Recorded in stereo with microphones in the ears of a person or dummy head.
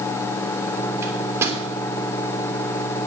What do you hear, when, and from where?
1.0 s a microwave: 15° right (ahead or behind), 3 m